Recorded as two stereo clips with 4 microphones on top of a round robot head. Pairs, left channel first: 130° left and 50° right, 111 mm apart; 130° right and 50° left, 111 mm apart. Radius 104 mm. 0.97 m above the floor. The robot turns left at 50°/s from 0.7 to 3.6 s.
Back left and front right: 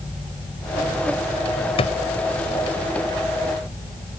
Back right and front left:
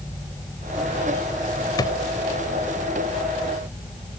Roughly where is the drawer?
Behind.